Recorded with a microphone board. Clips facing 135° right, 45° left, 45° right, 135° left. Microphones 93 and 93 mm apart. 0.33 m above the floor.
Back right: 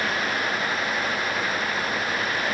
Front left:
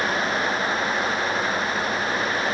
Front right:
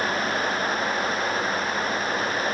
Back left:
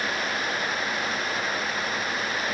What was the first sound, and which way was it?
Only background noise.